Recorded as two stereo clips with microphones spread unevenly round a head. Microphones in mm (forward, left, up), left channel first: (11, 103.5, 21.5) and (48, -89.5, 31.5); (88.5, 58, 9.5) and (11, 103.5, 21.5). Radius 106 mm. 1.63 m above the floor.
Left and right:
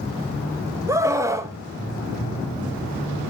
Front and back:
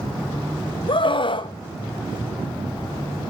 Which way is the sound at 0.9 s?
5° right.